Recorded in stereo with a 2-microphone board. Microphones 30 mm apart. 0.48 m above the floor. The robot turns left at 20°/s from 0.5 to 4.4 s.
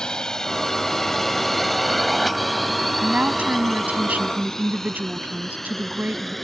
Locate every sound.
0.0 s a drone: 30° left (ahead or behind); by 6.5 s 5° left (ahead or behind)
3.0 s a woman speaking: 50° right (ahead or behind); by 6.3 s 75° right (ahead or behind)